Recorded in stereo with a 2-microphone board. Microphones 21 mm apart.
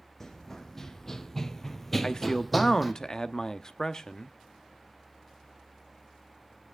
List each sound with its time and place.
0.2 s running footsteps: 25° left (ahead or behind), 1.5 m; by 2.9 s 5° right (ahead or behind), 1.2 m
2.0 s a man speaking: 25° left (ahead or behind), 0.7 m